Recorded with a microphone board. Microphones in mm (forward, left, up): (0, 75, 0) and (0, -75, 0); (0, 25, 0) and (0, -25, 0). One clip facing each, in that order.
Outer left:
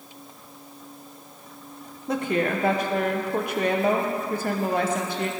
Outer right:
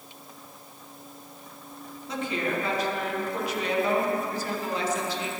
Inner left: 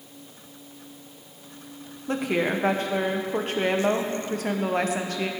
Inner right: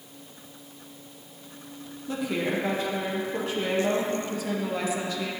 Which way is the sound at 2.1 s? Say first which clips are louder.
Outer left 5 dB, inner left 3 dB; 55° left (ahead or behind).